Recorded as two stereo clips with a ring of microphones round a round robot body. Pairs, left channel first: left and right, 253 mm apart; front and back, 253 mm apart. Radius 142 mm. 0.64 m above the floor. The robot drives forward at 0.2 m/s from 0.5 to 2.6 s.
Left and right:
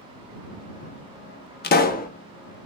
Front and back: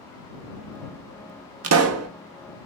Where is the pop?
145° left, 0.6 m; by 2.1 s 150° left, 0.7 m.